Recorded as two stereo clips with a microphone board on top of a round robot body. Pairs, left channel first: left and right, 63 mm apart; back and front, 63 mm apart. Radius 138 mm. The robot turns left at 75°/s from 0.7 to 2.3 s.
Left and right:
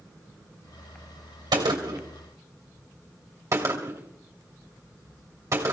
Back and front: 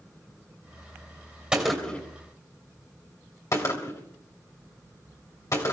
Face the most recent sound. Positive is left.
turn(degrees=-140)